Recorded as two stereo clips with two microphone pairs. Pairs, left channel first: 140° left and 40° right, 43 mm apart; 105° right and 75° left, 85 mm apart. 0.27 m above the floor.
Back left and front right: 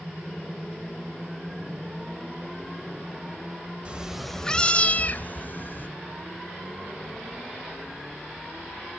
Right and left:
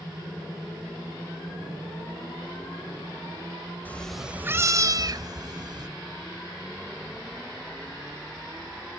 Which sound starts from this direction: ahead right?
A cat meowing, at 3.9 s.